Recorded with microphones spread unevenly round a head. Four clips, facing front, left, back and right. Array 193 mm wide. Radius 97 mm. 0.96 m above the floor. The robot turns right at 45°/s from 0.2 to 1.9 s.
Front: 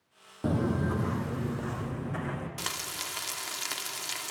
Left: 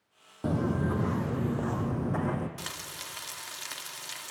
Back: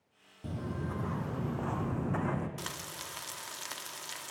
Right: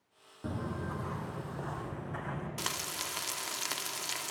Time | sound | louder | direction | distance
0.4 | footsteps | left 9 dB, front 10 dB | 30° left | 1.4 m
2.6 | frying | right 3 dB, front 4 dB | 50° right | 1.3 m